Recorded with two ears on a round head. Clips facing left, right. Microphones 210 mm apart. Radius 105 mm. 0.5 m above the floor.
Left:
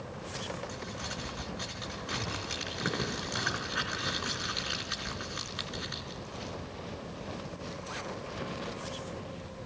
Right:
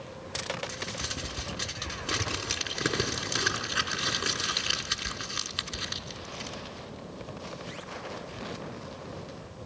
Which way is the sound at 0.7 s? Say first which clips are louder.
Right 1 dB; 35° right (ahead or behind).